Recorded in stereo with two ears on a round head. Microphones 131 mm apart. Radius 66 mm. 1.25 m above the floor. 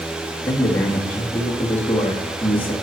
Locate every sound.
0.4 s a man speaking: 15° left (ahead or behind), 2 m